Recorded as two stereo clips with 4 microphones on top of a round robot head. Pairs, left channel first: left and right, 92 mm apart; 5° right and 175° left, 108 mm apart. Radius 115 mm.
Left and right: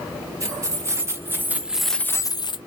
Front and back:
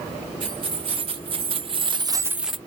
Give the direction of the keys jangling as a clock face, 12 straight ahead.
5 o'clock.